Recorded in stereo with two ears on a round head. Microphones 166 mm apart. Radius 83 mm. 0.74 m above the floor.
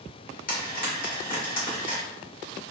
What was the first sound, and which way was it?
Frying, 50° left (ahead or behind).